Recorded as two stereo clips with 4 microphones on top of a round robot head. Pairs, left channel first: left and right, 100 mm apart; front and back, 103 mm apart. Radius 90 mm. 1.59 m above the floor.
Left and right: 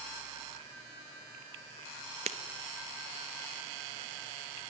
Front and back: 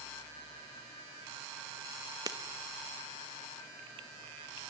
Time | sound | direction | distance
2.3 | breaking glass | 110° right | 1.2 m